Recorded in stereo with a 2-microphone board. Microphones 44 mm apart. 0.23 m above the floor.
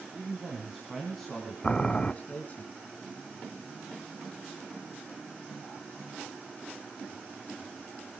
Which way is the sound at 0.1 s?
25° right (ahead or behind).